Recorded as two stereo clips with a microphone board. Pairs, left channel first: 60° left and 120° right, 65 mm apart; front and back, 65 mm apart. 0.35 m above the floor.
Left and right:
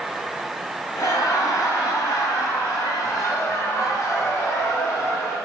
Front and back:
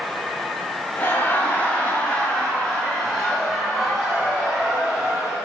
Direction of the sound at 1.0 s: 55° left.